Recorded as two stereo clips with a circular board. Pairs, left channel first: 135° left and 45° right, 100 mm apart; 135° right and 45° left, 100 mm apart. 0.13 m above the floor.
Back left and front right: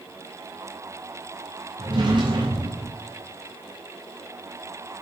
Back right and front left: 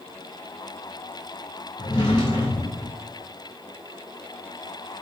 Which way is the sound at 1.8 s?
90° right.